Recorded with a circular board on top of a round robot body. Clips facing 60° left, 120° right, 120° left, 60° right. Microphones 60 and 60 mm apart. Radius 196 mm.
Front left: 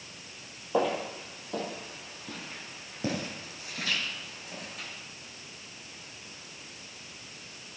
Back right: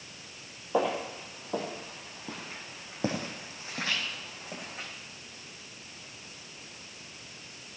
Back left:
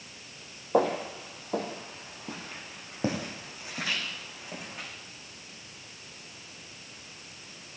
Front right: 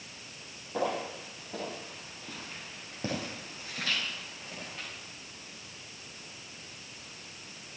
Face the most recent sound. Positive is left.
turn(degrees=-165)